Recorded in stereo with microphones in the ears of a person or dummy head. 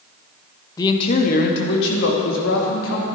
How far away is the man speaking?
About 1.4 m.